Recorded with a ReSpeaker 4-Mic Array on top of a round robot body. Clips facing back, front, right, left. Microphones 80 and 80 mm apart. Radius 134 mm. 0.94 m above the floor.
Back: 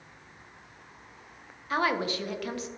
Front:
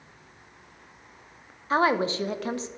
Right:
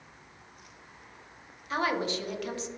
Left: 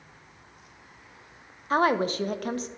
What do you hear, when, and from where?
1.7 s a woman speaking: 55° left, 0.7 m